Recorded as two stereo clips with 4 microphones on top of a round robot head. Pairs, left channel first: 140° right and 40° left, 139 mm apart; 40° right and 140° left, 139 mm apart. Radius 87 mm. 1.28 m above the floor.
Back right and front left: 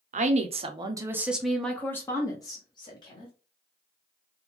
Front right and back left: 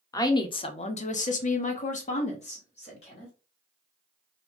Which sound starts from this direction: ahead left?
A woman speaking, at 0.1 s.